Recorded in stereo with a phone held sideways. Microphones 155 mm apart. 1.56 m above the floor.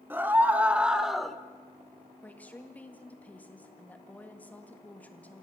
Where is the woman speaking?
10° left (ahead or behind), 1.9 m.